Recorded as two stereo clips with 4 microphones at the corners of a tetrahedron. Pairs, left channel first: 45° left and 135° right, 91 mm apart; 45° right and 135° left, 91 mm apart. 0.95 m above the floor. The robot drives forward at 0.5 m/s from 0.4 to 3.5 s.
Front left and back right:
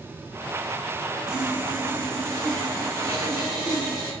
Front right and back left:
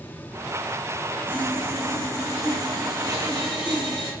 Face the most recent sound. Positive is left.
turn(degrees=175)